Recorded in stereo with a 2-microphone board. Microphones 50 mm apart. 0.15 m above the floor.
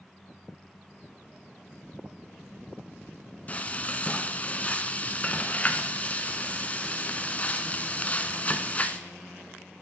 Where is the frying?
30° left (ahead or behind), 0.7 m.